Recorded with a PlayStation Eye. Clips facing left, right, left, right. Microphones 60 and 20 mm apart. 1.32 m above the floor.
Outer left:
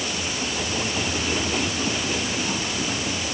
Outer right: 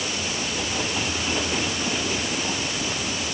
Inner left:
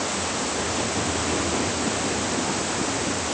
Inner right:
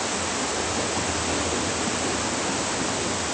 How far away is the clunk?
No clunk in this recording.